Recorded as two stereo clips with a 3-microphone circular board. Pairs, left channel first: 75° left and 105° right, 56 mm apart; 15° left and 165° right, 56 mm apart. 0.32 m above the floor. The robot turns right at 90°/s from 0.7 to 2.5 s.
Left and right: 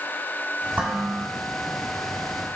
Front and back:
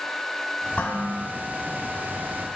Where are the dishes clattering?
45° right, 1.4 m; by 1.2 s straight ahead, 1.4 m.